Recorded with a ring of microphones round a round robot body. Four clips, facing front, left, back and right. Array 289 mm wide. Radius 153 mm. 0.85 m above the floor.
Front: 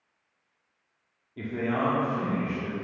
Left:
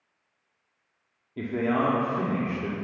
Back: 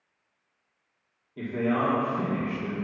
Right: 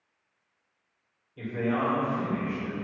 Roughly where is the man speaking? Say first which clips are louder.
Left 3 dB, back 2 dB; left.